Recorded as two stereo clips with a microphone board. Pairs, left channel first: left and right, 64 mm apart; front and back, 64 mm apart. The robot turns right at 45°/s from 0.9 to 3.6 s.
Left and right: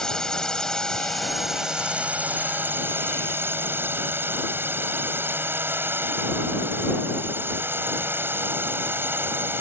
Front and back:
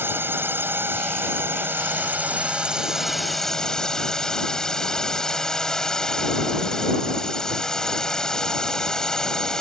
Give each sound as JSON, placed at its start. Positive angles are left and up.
{"t": 0.0, "sound": "a drone", "azimuth_deg": 165}